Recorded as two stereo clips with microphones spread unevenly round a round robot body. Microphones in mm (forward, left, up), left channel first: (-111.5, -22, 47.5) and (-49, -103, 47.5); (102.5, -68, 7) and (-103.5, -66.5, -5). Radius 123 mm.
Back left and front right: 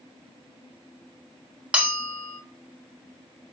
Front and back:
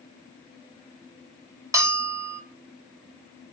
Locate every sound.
1.7 s a bell: 120° right, 1.3 m